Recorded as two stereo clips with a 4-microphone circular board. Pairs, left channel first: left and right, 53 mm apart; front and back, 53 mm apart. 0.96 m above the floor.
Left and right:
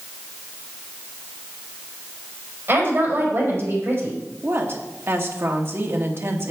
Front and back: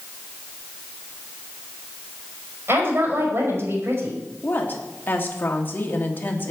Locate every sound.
2.7 s a woman speaking: 135° right, 4.5 m
4.4 s a woman speaking: 50° right, 1.9 m